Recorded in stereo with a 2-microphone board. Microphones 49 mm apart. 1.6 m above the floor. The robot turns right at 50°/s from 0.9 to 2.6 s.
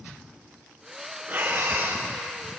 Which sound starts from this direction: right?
Breathing, at 1.3 s.